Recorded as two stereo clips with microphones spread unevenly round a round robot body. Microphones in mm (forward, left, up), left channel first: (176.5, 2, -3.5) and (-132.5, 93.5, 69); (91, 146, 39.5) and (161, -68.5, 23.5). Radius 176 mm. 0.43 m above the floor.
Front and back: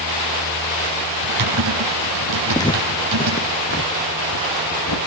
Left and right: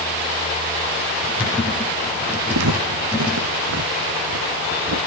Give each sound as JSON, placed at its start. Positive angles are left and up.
{"t": 1.2, "sound": "typing on a keyboard", "azimuth_deg": -155, "distance_m": 8.5}
{"t": 2.5, "sound": "footsteps", "azimuth_deg": -100, "distance_m": 1.9}